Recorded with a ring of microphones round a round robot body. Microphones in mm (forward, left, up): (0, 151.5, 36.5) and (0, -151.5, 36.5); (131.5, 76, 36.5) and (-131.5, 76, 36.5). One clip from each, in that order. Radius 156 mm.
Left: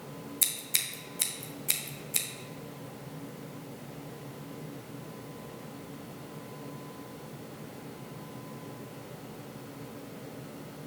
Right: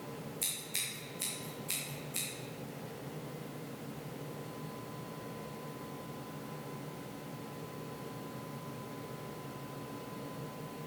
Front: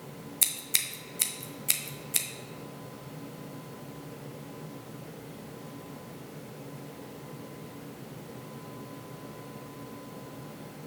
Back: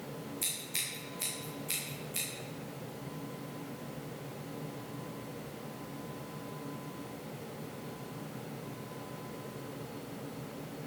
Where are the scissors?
30° left, 1.4 m.